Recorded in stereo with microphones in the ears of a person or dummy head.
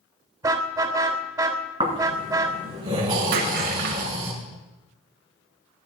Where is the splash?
55° right (ahead or behind), 3 m.